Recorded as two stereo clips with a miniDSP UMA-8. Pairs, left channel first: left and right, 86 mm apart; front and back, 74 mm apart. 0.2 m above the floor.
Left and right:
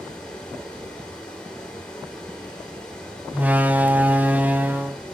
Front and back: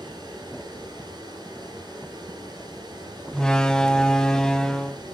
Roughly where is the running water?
Behind.